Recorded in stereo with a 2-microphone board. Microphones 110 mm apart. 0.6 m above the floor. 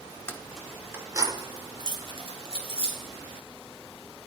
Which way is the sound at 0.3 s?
20° left (ahead or behind).